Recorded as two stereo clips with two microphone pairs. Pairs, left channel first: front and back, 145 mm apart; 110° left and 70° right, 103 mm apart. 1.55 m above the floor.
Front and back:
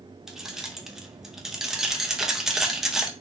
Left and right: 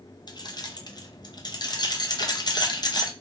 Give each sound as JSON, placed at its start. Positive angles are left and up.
{"t": 0.3, "sound": "keys jangling", "azimuth_deg": 105, "distance_m": 0.5}